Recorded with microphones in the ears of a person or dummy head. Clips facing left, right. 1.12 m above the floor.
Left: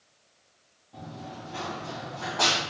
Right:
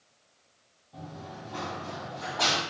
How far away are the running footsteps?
About 1.9 m.